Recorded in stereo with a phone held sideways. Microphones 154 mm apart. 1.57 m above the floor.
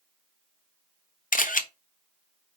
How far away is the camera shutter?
About 0.8 m.